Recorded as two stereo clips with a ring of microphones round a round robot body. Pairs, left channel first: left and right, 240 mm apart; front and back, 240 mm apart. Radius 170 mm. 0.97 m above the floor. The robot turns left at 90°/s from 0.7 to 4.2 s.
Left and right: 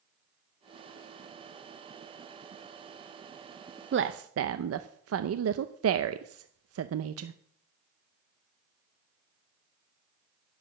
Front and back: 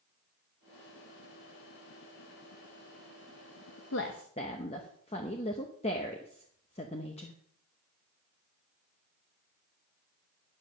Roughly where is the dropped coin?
No dropped coin in this recording.